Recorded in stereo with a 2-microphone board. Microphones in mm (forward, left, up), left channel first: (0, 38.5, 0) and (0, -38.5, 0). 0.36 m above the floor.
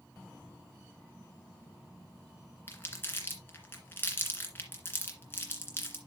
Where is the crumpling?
30° left (ahead or behind), 2.0 m.